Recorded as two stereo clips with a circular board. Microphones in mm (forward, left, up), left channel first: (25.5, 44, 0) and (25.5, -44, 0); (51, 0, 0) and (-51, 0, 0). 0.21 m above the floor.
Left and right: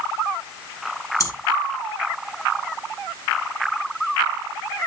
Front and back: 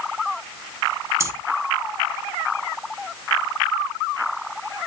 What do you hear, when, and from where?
1.2 s breathing: 125° left, 0.7 m